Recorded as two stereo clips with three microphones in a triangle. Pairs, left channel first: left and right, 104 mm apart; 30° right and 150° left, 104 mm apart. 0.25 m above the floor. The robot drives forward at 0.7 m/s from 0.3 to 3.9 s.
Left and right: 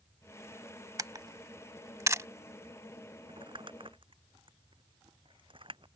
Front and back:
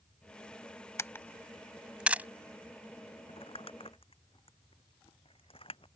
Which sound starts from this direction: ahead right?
Crumpling, at 3.3 s.